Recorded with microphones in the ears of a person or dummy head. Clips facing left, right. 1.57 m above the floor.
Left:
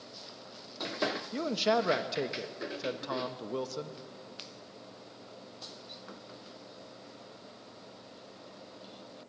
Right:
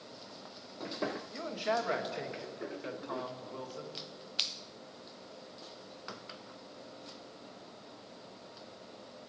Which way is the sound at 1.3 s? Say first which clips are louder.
Left 8 dB; 70° left (ahead or behind).